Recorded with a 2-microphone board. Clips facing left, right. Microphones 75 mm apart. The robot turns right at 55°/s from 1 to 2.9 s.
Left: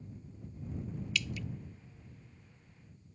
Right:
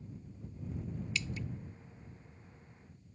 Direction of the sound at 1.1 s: 30° right (ahead or behind).